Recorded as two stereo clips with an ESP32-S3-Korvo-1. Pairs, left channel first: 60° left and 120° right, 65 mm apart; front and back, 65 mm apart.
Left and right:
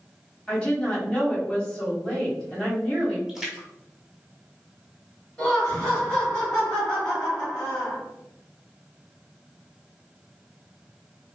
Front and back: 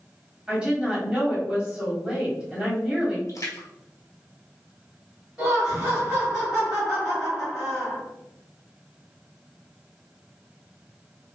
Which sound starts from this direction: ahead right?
A splash, at 3.3 s.